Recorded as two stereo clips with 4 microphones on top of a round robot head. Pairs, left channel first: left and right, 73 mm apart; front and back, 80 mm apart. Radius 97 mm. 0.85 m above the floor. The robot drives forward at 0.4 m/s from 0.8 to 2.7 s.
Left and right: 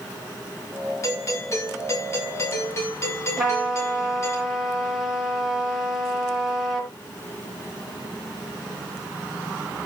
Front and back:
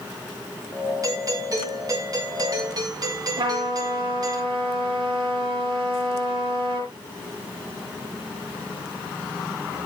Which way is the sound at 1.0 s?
135° left.